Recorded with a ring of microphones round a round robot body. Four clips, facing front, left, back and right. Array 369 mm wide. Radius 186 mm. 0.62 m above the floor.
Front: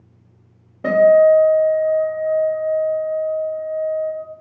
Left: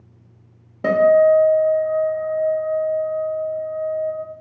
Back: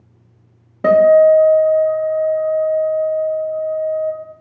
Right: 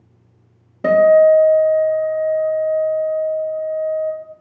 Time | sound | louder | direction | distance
0.8 | a guitar | right 3 dB, back 2 dB | 165° right | 0.6 m